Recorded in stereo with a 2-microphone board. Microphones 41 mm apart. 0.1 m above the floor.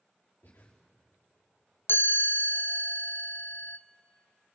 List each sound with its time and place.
0.4 s breathing: 65° left (ahead or behind), 5 m
1.9 s a chime: 60° left (ahead or behind), 0.9 m